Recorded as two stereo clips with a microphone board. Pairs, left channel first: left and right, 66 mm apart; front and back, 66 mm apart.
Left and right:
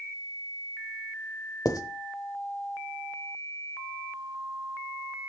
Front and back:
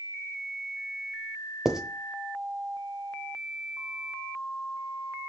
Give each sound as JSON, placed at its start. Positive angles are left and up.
{"t": 1.6, "sound": "writing", "azimuth_deg": 100, "distance_m": 0.8}